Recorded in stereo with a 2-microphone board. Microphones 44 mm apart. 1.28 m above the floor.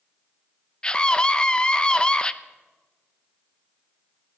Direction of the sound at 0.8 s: 20° left (ahead or behind).